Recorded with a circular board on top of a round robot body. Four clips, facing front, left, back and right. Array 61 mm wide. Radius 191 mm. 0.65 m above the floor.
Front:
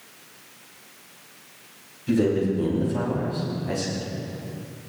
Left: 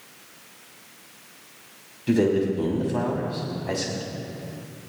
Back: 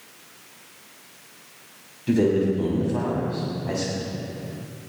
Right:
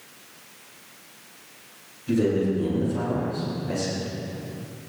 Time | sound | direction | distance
2.1 | a man speaking | 115° left | 6.5 m